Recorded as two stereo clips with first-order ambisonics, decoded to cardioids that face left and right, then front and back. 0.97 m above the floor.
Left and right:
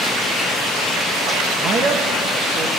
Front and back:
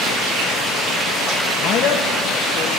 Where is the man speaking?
40° right, 0.7 m.